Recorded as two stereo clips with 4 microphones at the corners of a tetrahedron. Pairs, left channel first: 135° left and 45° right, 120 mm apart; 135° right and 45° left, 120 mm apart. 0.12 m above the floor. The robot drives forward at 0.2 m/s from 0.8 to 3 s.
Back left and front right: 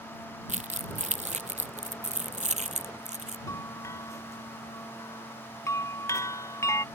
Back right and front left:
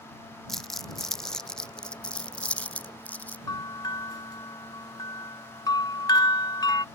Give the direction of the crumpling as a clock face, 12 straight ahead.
2 o'clock.